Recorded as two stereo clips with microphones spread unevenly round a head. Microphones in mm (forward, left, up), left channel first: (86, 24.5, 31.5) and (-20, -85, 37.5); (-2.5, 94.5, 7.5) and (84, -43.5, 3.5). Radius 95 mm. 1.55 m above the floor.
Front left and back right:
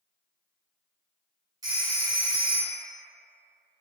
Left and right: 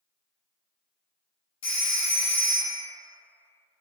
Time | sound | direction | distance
1.6 | a phone ringing | 165° left | 0.5 m